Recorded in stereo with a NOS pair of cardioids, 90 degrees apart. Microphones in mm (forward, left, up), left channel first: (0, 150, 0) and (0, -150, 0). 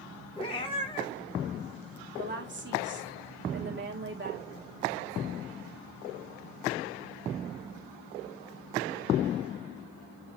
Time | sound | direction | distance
0.4 | a cat meowing | 20° left | 1.5 m
2.2 | a woman speaking | 35° right | 2.5 m